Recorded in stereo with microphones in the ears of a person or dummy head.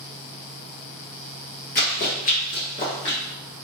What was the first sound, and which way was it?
Running footsteps, 40° left (ahead or behind).